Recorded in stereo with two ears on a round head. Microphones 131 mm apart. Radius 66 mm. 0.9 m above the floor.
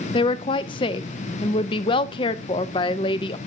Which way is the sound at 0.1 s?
35° left (ahead or behind).